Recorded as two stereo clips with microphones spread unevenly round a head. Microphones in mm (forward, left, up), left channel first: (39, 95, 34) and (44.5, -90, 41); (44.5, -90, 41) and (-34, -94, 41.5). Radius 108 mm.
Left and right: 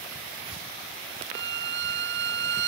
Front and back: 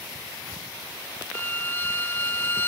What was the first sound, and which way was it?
A violin, 60° right.